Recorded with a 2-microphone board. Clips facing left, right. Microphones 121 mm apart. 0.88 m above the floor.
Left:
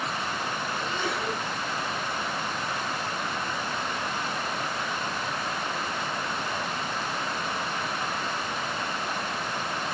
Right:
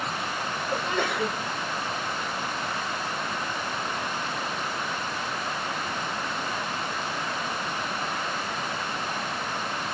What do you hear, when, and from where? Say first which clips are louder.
0.7 s a sneeze: right 6 dB; 75° right (ahead or behind), 5 m